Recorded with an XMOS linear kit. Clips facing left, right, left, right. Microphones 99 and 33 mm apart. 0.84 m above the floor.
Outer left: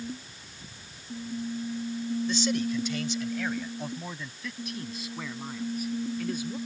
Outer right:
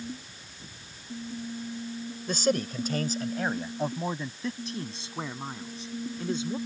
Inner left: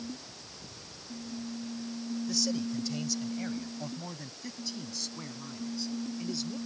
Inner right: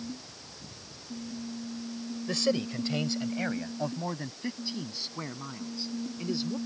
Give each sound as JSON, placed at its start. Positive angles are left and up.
{"t": 2.3, "sound": "a man speaking", "side_deg": -50}